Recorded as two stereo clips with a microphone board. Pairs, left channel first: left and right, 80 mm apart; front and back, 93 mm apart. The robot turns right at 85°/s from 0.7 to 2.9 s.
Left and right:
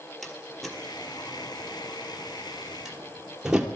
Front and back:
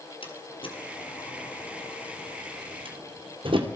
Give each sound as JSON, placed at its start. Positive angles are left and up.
{"t": 0.2, "sound": "a door slam", "azimuth_deg": 0, "distance_m": 2.5}